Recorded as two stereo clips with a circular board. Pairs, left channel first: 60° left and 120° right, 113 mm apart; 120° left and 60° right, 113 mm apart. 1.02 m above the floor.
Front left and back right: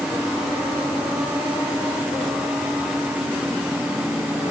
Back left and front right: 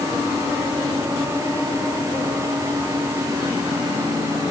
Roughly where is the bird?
No bird in this recording.